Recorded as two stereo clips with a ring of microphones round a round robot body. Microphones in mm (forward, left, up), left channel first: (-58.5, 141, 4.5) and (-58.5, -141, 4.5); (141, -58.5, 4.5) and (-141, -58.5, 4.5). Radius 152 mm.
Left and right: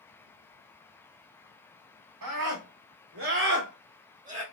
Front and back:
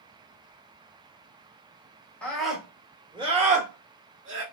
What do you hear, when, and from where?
2.2 s a scream: 85° right, 1.5 m; by 4.4 s 150° right, 1.4 m